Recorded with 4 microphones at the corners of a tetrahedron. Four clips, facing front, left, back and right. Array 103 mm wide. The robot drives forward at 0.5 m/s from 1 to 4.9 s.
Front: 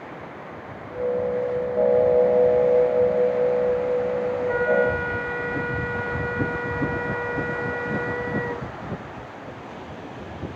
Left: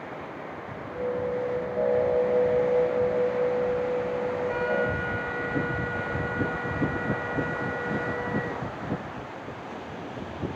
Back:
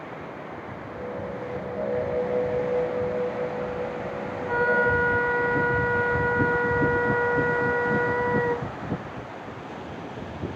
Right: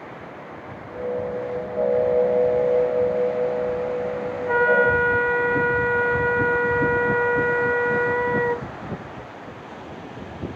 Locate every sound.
4.5 s a flute: 95° right, 0.5 m; by 8.7 s 115° right, 0.6 m